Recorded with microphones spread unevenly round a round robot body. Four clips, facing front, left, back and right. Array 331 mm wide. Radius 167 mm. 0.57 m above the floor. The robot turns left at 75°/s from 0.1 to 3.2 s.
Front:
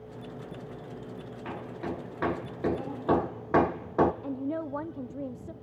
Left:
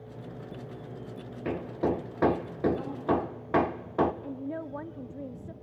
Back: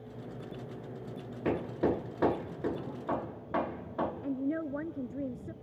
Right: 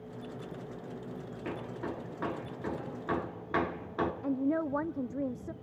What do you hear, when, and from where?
1.4 s hammering: 160° left, 1.2 m; by 4.1 s 30° left, 1.2 m
4.2 s a woman speaking: 110° right, 0.6 m